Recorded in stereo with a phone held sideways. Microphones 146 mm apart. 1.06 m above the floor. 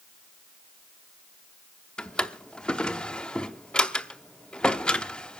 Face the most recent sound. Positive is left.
turn(degrees=5)  # may be behind; listen again after turning